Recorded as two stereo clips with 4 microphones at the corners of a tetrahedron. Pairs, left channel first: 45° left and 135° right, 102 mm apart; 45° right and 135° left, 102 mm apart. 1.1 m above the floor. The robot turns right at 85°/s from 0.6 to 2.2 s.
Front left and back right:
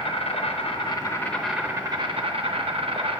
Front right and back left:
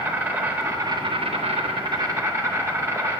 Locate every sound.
0.0 s an insect: 65° left, 0.8 m; by 3.2 s 160° right, 0.8 m